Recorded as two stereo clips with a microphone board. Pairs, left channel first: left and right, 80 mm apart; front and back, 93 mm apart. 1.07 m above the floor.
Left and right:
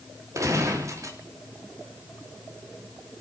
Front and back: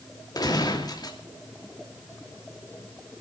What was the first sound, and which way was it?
A gunshot, 45° right.